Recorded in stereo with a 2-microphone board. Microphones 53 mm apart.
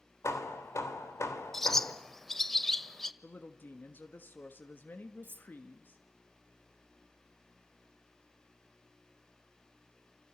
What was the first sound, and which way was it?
Hammering, 75° left (ahead or behind).